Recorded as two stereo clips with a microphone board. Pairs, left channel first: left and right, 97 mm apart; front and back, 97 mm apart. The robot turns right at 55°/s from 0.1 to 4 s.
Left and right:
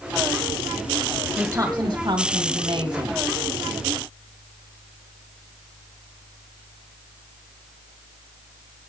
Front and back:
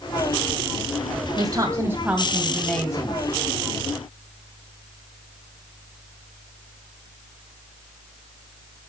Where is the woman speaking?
155° right, 2 m; by 3.2 s 55° right, 2 m.